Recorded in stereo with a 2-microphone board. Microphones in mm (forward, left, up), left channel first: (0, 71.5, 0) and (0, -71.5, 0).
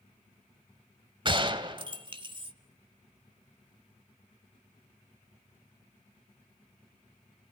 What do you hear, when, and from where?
1.2 s a gunshot: 35° right (ahead or behind), 1.4 m